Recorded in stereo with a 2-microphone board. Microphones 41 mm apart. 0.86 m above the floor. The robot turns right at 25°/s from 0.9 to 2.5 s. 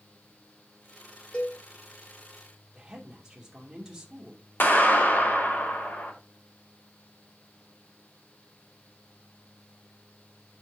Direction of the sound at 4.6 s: 55° left (ahead or behind).